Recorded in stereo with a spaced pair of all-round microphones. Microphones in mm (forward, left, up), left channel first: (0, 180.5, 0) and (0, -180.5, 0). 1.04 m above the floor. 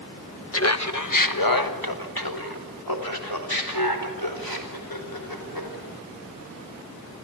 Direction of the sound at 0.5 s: 40° left (ahead or behind).